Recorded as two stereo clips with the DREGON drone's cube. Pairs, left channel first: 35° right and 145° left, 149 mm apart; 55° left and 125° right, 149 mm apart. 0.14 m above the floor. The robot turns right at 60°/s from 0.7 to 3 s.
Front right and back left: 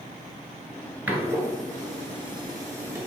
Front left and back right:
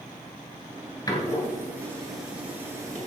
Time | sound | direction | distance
1.1 | a door slam | 80° left | 1.3 m